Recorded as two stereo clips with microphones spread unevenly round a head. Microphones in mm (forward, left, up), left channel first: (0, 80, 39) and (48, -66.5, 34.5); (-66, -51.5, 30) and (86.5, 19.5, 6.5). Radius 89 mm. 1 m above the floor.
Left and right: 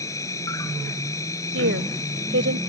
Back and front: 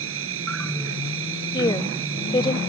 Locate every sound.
0.0 s an insect: 40° left
1.5 s a woman speaking: 90° right